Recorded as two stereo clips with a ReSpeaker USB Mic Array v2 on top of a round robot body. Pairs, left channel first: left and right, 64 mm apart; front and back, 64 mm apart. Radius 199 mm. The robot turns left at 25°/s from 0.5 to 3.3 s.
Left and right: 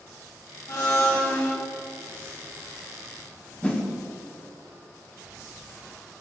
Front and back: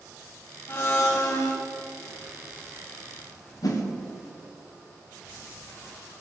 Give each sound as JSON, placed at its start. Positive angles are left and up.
{"t": 0.7, "sound": "a blender", "azimuth_deg": 50, "distance_m": 1.3}
{"t": 3.6, "sound": "a whoosh", "azimuth_deg": 20, "distance_m": 1.7}